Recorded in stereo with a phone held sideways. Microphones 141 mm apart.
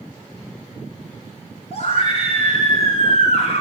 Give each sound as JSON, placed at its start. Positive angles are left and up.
{"t": 1.7, "sound": "a scream", "side_deg": 50, "distance_m": 7.0}